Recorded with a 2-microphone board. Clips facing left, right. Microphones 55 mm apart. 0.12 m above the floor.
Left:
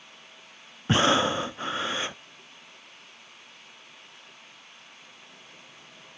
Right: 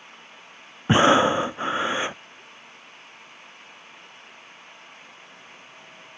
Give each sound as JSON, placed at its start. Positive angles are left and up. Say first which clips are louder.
{"t": 0.9, "sound": "breathing", "louder": "right 6 dB", "side_deg": -25}